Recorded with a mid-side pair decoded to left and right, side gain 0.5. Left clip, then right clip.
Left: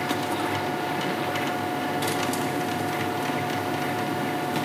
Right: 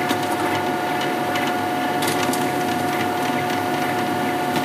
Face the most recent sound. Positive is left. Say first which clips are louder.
# right 6 dB
turn(degrees=-35)